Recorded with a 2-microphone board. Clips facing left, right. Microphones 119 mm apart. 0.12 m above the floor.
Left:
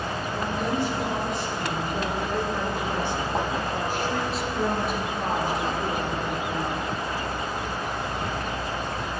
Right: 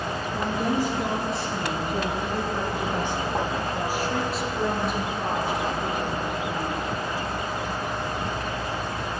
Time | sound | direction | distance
0.3 | a woman speaking | 40° right (ahead or behind) | 2.5 m